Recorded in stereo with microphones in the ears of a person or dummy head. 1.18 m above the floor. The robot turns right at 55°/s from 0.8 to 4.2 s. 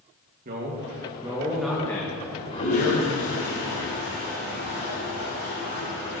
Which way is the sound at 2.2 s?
10° left.